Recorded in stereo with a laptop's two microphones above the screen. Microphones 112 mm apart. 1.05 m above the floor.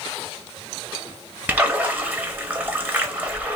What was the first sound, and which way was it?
A splash, 15° right (ahead or behind).